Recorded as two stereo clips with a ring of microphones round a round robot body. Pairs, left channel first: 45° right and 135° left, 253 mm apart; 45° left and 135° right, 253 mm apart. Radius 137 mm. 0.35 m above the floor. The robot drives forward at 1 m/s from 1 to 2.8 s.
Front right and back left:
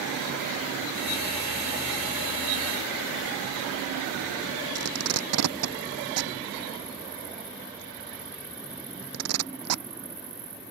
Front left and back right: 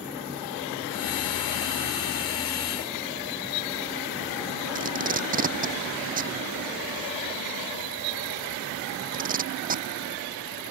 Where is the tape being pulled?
165° left.